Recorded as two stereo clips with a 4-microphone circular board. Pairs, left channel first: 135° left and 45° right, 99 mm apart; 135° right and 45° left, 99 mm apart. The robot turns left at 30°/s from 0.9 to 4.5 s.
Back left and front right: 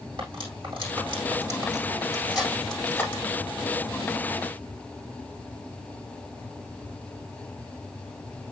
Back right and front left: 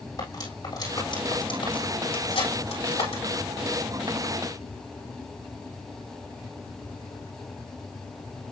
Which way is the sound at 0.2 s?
85° right.